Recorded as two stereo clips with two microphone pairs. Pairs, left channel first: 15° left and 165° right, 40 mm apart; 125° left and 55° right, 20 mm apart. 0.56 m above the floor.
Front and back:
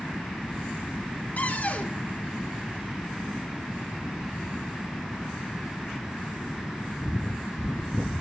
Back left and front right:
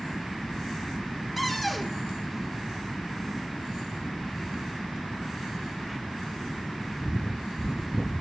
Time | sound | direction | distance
1.4 | a cupboard door | 40° left | 1.6 m